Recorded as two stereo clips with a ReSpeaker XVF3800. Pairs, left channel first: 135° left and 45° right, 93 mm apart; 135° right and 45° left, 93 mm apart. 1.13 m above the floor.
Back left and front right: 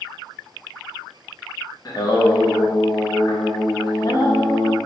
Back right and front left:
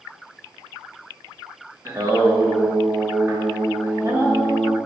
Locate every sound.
1.9 s singing: 95° left, 0.8 m